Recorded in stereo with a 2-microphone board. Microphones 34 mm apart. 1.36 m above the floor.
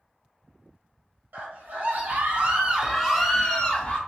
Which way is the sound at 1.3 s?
65° right (ahead or behind).